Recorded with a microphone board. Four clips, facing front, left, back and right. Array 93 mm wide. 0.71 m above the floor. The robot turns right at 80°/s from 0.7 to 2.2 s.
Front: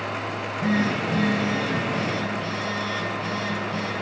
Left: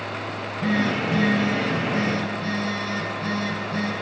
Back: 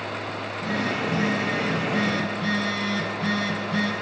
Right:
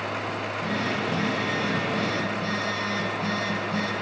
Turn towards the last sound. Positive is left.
turn(degrees=180)